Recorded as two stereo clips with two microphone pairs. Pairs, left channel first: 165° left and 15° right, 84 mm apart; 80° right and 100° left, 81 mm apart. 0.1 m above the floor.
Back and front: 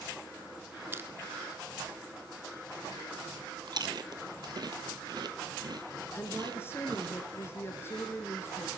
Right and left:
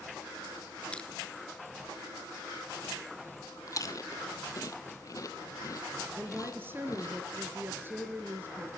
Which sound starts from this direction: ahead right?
Chewing, at 3.7 s.